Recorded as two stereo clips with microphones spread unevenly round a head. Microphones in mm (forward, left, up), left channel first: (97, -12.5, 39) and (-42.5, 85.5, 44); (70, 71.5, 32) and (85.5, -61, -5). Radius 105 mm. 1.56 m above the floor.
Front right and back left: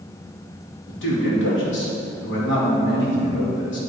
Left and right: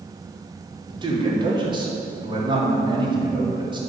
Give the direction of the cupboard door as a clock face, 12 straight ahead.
I don't hear a cupboard door.